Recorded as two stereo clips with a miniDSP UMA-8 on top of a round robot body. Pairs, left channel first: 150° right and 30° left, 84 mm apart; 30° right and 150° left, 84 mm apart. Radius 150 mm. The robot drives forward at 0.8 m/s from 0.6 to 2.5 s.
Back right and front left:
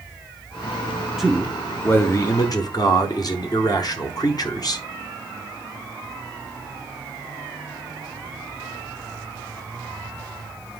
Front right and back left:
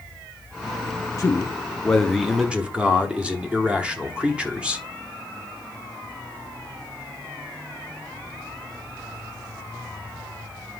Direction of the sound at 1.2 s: 55° right.